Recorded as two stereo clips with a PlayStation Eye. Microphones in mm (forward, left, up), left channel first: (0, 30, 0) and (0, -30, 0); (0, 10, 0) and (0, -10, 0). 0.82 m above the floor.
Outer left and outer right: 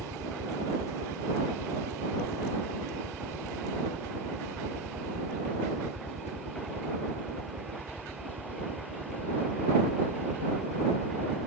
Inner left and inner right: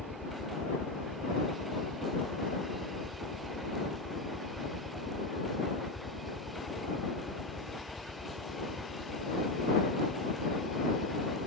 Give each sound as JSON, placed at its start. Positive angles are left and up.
{"t": 0.0, "sound": "a helicopter", "side_deg": -65}